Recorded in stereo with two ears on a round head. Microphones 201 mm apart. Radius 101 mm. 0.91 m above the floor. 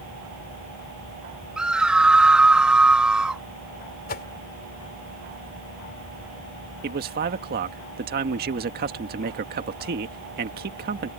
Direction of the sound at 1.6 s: 5° right (ahead or behind).